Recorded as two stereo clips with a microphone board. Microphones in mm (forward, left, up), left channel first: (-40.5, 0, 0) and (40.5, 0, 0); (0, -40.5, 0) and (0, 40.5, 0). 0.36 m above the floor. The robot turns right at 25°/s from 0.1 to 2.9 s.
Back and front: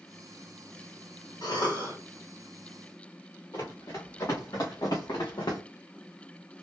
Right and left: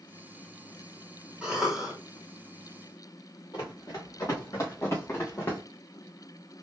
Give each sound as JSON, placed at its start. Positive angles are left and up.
{"t": 1.4, "sound": "a cough", "azimuth_deg": 165, "distance_m": 3.0}
{"t": 3.5, "sound": "running footsteps", "azimuth_deg": -130, "distance_m": 3.0}